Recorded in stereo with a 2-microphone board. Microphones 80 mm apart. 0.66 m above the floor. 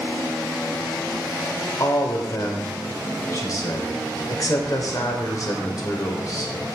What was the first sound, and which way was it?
A man speaking, 50° left (ahead or behind).